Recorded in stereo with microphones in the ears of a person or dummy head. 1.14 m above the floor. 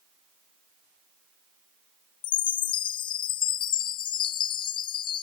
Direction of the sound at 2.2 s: 25° left (ahead or behind).